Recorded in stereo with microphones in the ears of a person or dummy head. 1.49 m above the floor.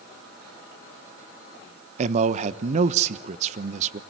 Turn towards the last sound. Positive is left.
turn(degrees=-45)  # may be behind; listen again after turning